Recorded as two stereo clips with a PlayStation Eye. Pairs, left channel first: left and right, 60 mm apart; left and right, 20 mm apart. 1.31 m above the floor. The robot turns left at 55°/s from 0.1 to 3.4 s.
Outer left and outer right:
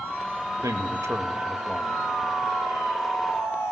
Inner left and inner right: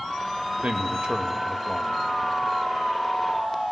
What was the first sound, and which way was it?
A man speaking, 105° right.